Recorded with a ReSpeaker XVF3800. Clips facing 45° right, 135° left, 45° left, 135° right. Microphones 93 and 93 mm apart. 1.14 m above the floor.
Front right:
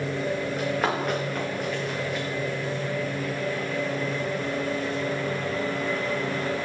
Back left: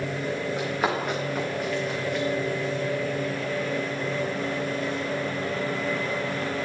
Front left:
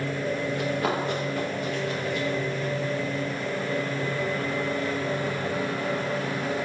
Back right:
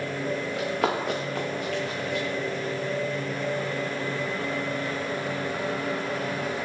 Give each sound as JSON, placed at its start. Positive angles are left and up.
{"t": 0.6, "sound": "running footsteps", "azimuth_deg": -140, "distance_m": 5.0}